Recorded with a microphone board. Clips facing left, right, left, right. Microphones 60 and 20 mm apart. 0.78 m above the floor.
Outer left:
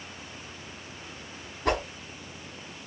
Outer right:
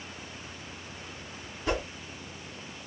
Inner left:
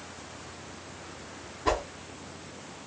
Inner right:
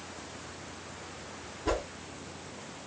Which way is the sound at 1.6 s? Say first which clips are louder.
Outer left 3 dB, inner left 4 dB; 70° left (ahead or behind).